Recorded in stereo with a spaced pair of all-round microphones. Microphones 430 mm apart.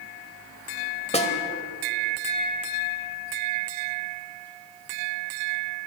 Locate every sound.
1.1 s a snare drum: 15° left (ahead or behind), 1.5 m